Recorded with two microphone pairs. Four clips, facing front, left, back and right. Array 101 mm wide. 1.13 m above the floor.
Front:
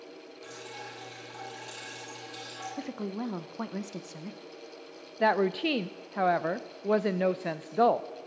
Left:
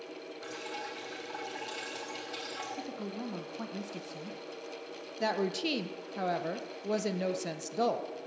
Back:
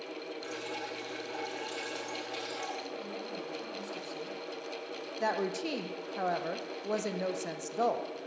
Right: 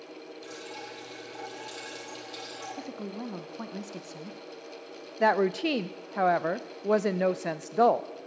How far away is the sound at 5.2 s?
About 0.5 m.